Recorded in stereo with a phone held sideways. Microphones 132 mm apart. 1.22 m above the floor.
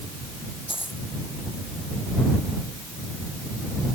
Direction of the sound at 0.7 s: 40° left (ahead or behind).